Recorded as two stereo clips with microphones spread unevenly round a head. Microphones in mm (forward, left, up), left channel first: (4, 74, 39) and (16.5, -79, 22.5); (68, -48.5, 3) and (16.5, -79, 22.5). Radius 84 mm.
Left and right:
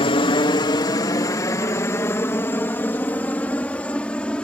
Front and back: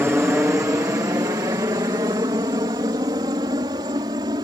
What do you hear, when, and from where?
0.0 s a helicopter: 145° left; by 4.4 s straight behind